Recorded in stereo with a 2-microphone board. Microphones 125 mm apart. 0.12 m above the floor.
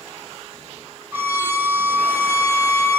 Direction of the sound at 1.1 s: 15° right (ahead or behind).